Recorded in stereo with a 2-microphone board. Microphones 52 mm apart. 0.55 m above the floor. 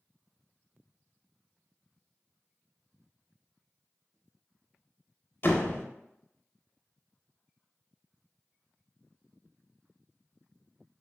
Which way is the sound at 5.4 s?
45° left (ahead or behind).